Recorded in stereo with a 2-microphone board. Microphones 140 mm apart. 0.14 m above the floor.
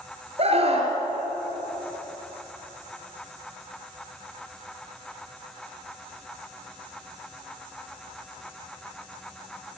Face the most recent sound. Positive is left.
turn(degrees=-45)  # may be behind; listen again after turning